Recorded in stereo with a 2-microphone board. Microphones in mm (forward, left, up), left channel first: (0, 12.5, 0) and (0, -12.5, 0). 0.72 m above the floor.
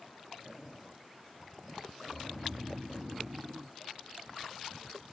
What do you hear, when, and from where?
2.1 s snoring: 60° right (ahead or behind)